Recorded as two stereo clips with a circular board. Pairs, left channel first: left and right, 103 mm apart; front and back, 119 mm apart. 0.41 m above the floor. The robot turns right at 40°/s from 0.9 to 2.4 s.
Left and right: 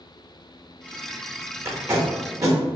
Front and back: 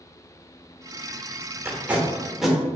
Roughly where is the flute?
I don't hear a flute.